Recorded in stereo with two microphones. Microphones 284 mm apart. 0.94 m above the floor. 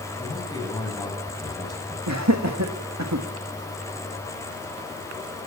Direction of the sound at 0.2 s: 15° left (ahead or behind).